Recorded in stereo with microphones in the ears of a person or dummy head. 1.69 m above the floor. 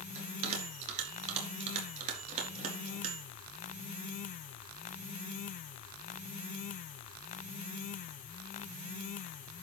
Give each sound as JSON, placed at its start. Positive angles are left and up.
{"t": 0.1, "sound": "a bell", "side_deg": -35, "distance_m": 4.0}